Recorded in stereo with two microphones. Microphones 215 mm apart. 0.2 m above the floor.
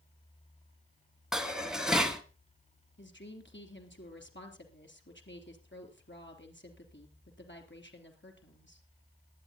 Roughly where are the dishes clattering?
Centre.